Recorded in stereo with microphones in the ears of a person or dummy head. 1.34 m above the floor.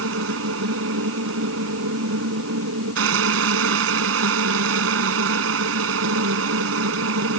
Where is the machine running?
80° right.